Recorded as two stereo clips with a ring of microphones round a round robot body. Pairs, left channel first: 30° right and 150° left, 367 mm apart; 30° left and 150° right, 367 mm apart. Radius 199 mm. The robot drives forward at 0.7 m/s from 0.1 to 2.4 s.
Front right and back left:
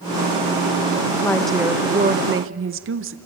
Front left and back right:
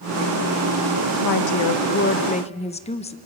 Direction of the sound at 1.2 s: 50° left.